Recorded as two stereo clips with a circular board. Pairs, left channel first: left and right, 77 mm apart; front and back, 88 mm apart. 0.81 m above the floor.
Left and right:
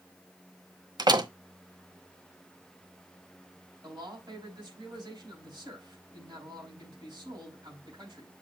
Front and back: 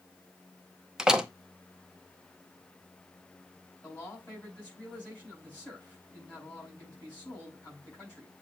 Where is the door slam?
100° right, 0.7 m.